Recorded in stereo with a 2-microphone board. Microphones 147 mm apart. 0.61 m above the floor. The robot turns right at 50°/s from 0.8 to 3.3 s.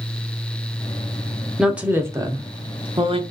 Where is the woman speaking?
Centre (ahead or behind), 0.8 m; by 3.2 s 40° right (ahead or behind), 0.8 m.